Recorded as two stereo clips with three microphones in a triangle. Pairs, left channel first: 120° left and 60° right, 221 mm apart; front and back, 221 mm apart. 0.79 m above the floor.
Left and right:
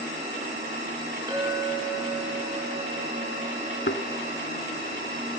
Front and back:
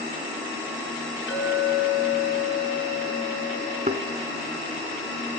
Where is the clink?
10° left, 6 m.